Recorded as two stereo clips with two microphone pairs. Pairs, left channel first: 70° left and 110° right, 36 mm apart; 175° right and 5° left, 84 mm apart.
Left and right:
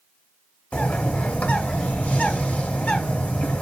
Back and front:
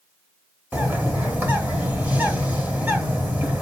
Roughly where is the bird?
Ahead left.